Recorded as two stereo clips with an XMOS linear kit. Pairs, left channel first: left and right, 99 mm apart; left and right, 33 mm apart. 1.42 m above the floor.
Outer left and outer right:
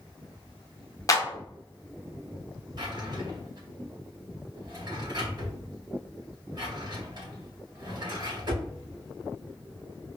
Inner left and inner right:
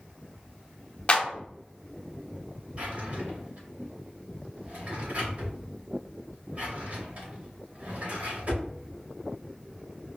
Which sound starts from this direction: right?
A drawer, at 2.8 s.